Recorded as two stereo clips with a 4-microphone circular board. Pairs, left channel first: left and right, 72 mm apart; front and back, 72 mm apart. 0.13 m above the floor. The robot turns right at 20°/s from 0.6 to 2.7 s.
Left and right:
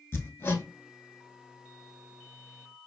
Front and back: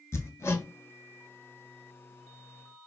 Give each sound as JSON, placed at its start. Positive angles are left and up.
{"t": 0.1, "sound": "hammering", "azimuth_deg": 40, "distance_m": 0.7}